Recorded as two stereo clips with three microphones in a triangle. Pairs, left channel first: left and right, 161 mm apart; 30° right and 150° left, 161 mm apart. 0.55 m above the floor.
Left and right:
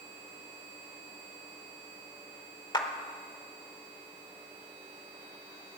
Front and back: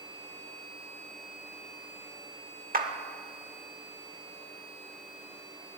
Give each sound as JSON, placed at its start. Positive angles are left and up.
{"t": 2.7, "sound": "a clap", "azimuth_deg": 145, "distance_m": 1.2}